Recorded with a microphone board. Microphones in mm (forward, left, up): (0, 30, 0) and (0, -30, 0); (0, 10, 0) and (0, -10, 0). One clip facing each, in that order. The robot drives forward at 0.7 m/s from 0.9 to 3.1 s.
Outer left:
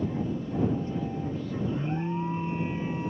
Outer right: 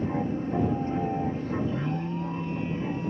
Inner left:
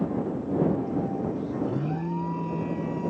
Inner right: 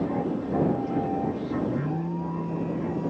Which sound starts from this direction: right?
An aircraft, at 0.0 s.